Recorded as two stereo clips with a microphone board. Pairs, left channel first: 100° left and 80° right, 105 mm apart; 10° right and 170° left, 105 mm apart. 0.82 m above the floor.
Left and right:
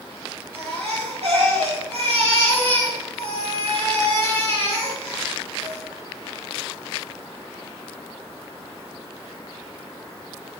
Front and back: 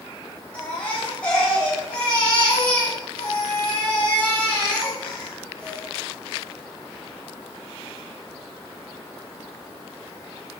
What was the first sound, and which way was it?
A baby crying, 90° right.